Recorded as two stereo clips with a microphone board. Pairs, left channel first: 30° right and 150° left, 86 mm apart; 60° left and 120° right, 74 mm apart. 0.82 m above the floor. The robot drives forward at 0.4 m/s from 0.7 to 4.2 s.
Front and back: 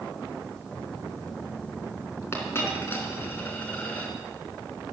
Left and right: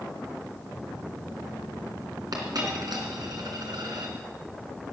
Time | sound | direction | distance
2.3 | a dropped coin | 90° right | 3.5 m